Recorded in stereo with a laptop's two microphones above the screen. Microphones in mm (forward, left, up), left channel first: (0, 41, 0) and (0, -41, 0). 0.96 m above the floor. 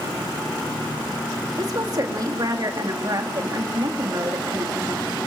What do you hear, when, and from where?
1.6 s a woman speaking: 50° right (ahead or behind), 2.0 m